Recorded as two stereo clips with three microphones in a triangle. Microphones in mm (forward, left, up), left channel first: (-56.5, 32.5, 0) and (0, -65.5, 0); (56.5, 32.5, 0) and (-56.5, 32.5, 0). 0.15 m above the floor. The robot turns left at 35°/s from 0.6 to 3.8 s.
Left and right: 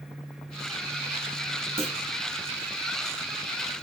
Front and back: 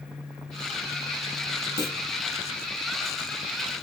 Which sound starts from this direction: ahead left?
A clunk, at 1.8 s.